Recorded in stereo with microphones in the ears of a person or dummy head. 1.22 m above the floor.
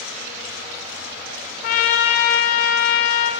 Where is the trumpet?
45° left (ahead or behind), 0.6 m.